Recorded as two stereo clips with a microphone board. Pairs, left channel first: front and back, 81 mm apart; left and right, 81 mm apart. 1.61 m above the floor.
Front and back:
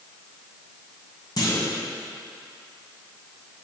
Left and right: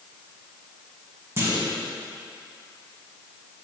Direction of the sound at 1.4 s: 35° right.